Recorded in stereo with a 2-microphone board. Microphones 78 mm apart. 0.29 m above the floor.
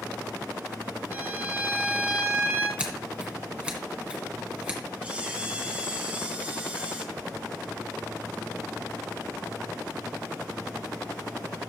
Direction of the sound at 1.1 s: 25° right (ahead or behind).